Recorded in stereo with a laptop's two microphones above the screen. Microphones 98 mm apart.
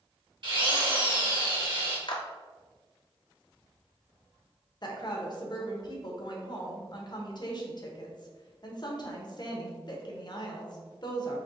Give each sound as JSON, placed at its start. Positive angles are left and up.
{"t": 0.4, "sound": "a drill", "side_deg": -50, "distance_m": 1.1}
{"t": 2.1, "sound": "a clap", "side_deg": 55, "distance_m": 1.1}
{"t": 4.8, "sound": "a woman speaking", "side_deg": 45, "distance_m": 0.9}